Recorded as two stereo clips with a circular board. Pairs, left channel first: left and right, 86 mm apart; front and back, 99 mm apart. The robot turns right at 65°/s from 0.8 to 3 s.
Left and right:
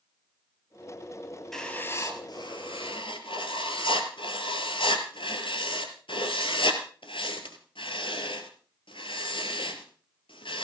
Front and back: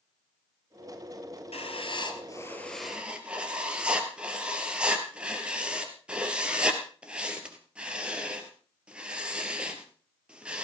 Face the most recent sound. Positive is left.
turn(degrees=100)